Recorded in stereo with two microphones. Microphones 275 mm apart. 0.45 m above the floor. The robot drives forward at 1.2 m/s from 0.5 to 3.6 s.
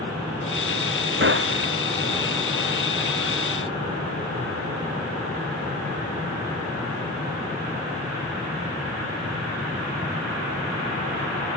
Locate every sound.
1.2 s a gunshot: 45° right (ahead or behind)